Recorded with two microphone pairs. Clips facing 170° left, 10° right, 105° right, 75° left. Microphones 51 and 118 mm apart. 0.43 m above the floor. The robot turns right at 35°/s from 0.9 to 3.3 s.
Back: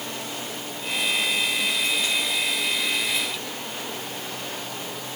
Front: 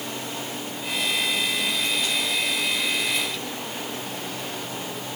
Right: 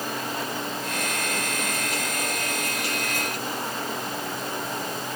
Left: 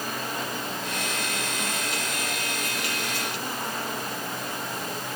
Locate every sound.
Only background noise.